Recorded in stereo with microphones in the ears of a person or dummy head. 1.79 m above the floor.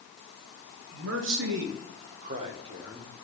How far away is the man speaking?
About 1.8 m.